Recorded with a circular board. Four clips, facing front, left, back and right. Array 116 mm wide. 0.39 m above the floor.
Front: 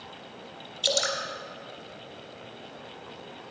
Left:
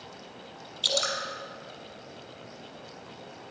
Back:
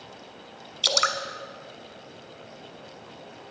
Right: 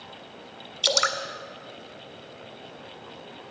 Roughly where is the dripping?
Behind right.